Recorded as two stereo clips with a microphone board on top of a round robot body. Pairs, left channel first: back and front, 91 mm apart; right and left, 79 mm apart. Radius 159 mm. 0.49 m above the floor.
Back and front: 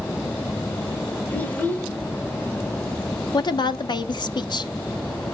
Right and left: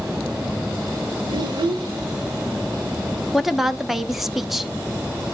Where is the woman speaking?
175° left, 1.1 m.